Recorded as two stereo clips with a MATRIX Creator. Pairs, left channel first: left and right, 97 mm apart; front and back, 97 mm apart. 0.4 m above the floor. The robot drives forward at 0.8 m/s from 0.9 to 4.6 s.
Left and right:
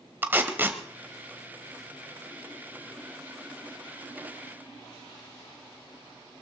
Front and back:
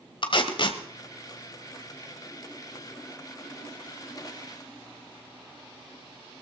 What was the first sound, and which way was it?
Tape being pulled, 20° right.